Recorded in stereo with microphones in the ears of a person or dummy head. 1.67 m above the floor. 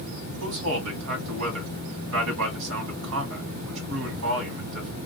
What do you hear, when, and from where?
0.4 s a man speaking: 65° right (ahead or behind), 1.3 m